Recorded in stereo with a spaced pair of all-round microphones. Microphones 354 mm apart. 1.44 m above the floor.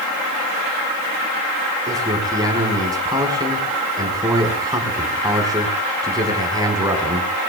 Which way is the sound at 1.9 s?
10° right (ahead or behind).